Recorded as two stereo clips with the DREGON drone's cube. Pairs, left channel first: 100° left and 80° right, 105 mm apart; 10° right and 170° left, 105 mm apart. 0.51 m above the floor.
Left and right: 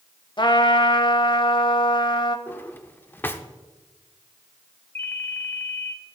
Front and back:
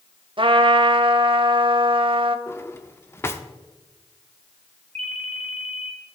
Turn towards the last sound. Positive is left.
turn(degrees=170)